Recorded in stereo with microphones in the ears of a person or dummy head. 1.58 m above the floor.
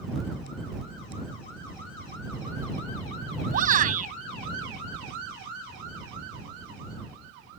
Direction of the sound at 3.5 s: 45° right (ahead or behind).